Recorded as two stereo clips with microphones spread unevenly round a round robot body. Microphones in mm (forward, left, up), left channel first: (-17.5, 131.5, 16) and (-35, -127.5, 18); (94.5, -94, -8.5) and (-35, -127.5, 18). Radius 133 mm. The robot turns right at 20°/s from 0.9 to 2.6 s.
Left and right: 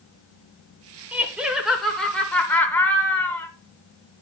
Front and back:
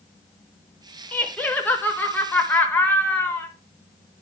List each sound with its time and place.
1.1 s laughter: 15° right, 0.8 m; by 3.5 s 15° left, 0.8 m